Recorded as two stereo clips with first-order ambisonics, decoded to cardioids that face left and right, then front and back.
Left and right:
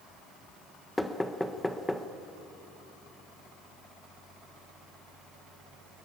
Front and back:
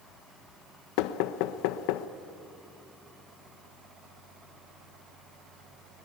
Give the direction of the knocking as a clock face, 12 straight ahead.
12 o'clock.